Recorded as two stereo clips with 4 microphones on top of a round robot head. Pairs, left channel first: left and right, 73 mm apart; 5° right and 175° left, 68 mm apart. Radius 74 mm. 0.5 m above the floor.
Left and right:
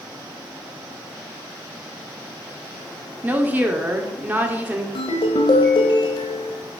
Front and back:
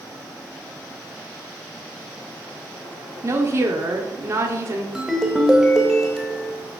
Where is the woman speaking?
150° right, 1.4 m.